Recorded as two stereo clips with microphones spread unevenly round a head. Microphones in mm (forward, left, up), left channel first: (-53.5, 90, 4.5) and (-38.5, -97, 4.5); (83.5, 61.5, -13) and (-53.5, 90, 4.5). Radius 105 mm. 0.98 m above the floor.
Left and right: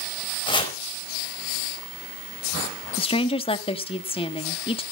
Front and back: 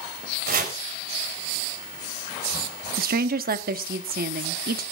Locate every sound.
0.5 s chopping: 160° left, 4.5 m
3.0 s a woman speaking: 155° left, 1.4 m